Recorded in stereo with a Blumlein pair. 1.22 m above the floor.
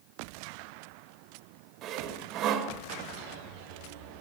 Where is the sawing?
35° right, 2 m.